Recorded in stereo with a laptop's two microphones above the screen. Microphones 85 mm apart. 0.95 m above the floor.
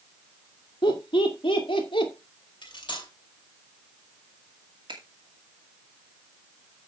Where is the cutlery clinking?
70° left (ahead or behind), 2 m.